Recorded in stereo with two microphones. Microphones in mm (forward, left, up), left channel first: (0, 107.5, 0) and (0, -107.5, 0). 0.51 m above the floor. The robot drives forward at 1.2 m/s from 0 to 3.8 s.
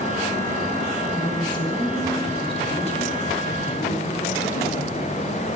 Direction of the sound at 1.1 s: 20° left (ahead or behind).